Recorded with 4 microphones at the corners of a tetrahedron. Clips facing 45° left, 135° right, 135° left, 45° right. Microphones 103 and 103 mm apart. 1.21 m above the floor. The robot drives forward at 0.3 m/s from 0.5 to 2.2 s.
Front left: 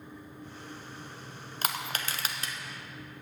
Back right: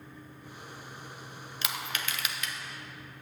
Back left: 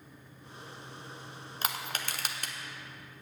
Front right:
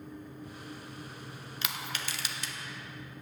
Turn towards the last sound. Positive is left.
turn(degrees=100)